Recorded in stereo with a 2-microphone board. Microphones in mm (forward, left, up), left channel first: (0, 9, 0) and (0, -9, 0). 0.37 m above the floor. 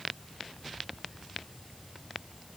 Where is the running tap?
No running tap in this recording.